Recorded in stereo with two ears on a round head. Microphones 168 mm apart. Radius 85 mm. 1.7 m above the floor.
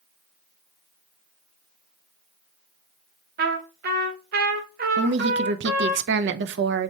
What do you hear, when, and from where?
3.4 s a trumpet: 50° right (ahead or behind), 1.1 m
5.0 s a woman speaking: 65° right (ahead or behind), 0.5 m